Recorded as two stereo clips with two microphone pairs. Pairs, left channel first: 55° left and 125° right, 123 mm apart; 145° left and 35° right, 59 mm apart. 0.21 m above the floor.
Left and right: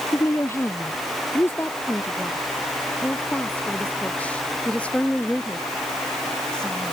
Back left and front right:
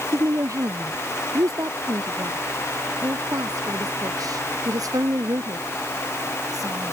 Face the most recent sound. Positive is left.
turn(degrees=-25)